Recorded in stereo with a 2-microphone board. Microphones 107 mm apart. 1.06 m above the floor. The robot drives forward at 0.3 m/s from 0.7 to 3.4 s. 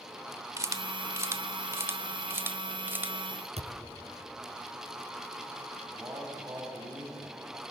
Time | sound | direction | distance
0.6 | a camera shutter | 30° right (ahead or behind) | 1.0 m
3.6 | a thud | 75° right (ahead or behind) | 4.5 m
5.9 | a man speaking | 25° right (ahead or behind) | 6 m